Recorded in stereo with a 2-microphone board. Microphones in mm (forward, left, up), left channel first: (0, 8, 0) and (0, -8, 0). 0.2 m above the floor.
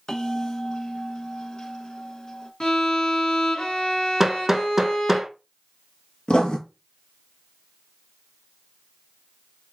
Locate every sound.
0.1 s a bell: 50° left (ahead or behind), 1.1 m
2.6 s a violin: 50° left (ahead or behind), 2 m
4.2 s hammering: 20° right (ahead or behind), 0.6 m
6.3 s writing: 75° left (ahead or behind), 0.9 m